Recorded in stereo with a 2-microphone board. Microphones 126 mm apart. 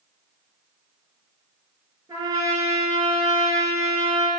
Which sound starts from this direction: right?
A trumpet, at 2.1 s.